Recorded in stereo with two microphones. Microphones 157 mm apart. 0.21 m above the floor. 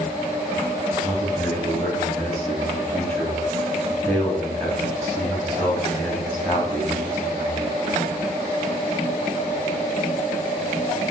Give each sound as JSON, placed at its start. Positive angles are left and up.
{"t": 1.0, "sound": "a man speaking", "side_deg": 10, "distance_m": 1.5}